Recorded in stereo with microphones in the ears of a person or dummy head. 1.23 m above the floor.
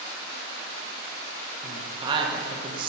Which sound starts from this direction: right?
A woman speaking, at 1.6 s.